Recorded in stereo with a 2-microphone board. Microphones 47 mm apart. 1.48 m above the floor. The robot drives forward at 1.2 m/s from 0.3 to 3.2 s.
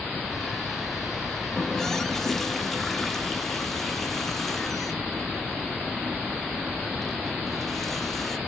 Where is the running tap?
10° left (ahead or behind), 0.5 m; by 8.4 s 5° left (ahead or behind), 2 m.